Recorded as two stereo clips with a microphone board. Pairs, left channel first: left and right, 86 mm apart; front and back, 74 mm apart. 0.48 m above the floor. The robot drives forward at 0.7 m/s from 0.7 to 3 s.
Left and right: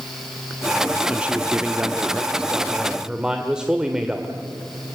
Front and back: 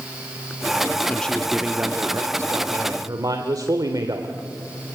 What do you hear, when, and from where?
1.1 s a man speaking: 40° right, 0.9 m; by 4.3 s 170° right, 1.4 m